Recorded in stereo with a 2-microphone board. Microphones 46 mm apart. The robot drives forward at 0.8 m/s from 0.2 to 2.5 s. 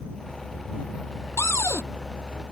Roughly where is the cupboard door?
Left.